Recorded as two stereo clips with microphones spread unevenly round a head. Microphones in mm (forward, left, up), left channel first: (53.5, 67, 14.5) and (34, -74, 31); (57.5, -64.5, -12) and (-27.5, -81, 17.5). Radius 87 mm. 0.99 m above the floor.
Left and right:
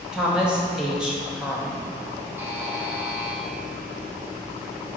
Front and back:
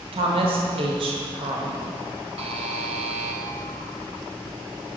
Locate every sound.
0.1 s a woman speaking: 170° left, 1.0 m
2.4 s a buzzer: 175° right, 0.6 m